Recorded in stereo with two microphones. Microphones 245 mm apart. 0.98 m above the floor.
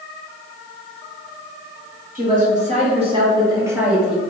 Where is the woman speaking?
35° right (ahead or behind), 1.7 m; by 4.2 s centre (ahead or behind), 1.1 m.